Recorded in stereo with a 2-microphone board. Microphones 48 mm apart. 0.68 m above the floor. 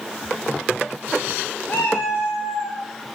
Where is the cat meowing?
50° left (ahead or behind), 0.7 m.